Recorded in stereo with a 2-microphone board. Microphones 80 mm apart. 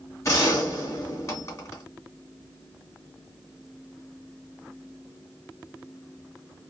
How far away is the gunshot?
About 2 m.